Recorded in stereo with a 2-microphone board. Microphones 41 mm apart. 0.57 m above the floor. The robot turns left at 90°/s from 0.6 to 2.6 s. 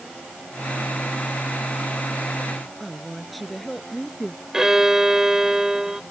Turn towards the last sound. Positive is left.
turn(degrees=-15)  # may be behind; listen again after turning